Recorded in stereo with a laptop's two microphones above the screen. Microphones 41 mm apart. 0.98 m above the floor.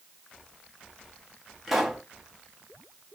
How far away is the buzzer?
No buzzer in this recording.